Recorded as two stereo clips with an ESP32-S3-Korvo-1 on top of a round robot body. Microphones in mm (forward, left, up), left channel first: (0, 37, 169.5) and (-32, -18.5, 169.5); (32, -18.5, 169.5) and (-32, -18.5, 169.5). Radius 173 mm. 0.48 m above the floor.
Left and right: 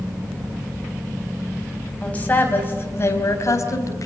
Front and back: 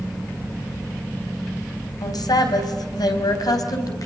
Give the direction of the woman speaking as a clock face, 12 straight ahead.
12 o'clock.